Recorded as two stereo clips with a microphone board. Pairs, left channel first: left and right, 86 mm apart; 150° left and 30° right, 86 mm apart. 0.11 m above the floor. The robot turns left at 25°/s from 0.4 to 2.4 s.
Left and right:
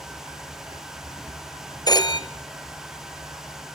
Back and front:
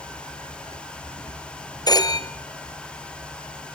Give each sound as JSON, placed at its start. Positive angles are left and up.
{"t": 1.9, "sound": "a phone ringing", "azimuth_deg": 120, "distance_m": 1.3}